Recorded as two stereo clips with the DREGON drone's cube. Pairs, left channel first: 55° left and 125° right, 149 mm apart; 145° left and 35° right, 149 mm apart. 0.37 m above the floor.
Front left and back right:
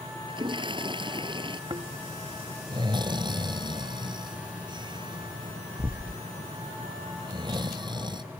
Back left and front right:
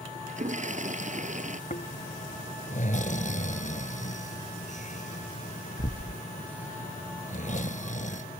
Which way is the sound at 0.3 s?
70° right.